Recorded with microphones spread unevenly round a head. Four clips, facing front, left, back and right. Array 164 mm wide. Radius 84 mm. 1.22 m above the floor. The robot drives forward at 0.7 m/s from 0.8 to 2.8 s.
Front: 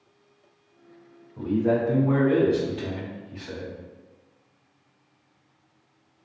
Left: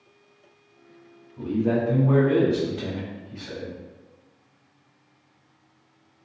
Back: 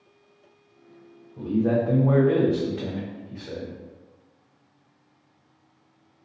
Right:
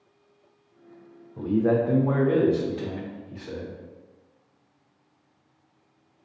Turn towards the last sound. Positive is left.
turn(degrees=-150)